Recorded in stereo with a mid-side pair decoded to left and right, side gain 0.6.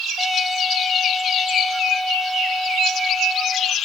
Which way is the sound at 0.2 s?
Straight ahead.